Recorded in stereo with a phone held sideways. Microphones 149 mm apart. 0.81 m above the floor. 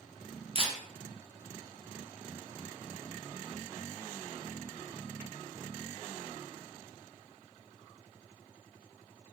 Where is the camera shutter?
40° right (ahead or behind), 0.6 m.